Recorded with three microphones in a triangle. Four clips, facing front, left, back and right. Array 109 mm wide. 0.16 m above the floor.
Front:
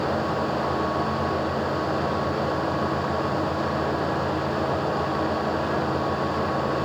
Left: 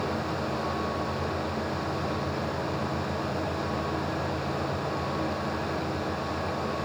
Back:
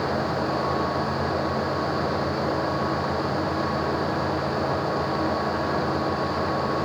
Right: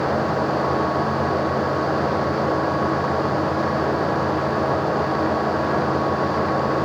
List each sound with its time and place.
Only background noise.